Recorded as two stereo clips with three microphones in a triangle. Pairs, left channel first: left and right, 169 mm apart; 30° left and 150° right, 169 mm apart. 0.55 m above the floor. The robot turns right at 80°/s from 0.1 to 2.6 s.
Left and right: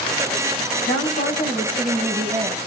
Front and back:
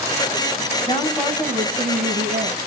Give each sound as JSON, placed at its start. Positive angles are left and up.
{"t": 0.8, "sound": "a woman speaking", "azimuth_deg": 85, "distance_m": 3.5}